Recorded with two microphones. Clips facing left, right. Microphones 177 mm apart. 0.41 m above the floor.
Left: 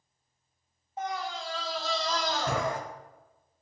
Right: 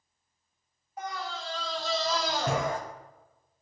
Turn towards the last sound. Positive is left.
turn(degrees=-30)  # may be behind; listen again after turning